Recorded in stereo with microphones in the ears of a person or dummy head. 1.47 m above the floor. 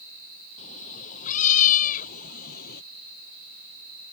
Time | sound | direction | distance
0.6 | a cat meowing | 45° left (ahead or behind) | ?